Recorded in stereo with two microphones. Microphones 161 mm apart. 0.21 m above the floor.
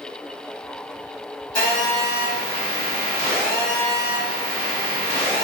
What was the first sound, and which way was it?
A phone buzzing, 25° left (ahead or behind).